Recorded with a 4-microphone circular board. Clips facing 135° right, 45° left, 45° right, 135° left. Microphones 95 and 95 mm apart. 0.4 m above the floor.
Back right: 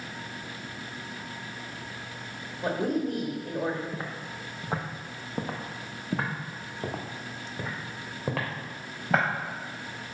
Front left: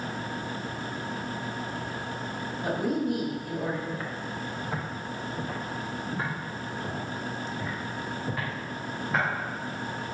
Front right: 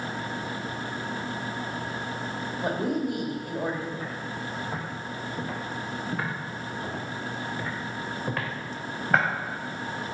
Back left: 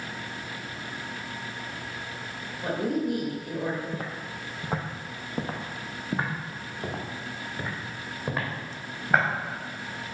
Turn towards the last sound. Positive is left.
turn(degrees=-140)